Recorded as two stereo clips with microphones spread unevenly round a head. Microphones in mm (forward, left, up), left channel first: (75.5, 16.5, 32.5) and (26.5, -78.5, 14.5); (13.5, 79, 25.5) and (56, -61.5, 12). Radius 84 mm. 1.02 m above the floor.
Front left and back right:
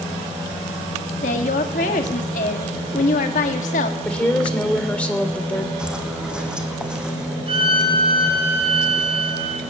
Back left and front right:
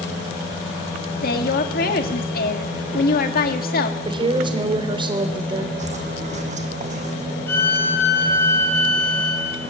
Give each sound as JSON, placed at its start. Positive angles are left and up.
{"t": 1.2, "sound": "a woman speaking", "azimuth_deg": 85, "distance_m": 2.0}
{"t": 4.0, "sound": "a woman speaking", "azimuth_deg": -15, "distance_m": 3.0}
{"t": 5.8, "sound": "footsteps", "azimuth_deg": -35, "distance_m": 3.0}
{"t": 7.5, "sound": "a violin", "azimuth_deg": -175, "distance_m": 3.5}